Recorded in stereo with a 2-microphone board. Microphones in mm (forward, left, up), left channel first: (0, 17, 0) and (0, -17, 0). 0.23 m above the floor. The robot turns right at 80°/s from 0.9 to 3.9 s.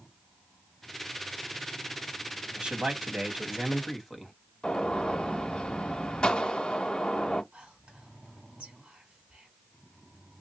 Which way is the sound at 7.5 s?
35° right (ahead or behind).